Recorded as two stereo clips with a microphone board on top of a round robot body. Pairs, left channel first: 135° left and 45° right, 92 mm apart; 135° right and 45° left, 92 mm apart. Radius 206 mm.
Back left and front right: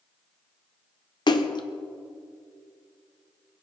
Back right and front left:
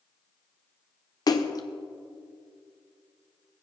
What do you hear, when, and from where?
1.3 s a splash: 175° left, 0.7 m